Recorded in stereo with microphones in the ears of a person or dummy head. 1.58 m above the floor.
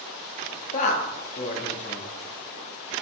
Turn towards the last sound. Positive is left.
turn(degrees=40)  # may be behind; listen again after turning